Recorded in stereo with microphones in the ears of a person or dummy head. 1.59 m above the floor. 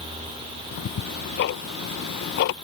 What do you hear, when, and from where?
0.7 s ticking: 50° left (ahead or behind)